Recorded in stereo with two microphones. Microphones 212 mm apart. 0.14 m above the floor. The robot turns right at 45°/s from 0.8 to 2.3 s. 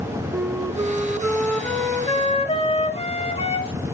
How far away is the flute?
About 0.9 m.